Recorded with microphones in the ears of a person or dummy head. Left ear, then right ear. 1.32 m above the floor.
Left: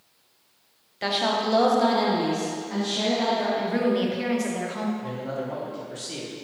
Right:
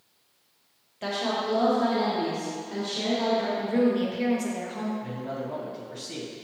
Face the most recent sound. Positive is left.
turn(degrees=30)  # may be behind; listen again after turning